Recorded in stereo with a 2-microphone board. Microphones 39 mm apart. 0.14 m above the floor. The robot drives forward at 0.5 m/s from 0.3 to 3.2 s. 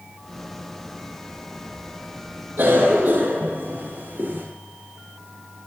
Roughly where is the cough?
Right.